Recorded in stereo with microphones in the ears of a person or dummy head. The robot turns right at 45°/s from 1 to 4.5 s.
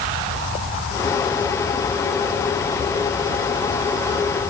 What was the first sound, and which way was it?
Only background noise.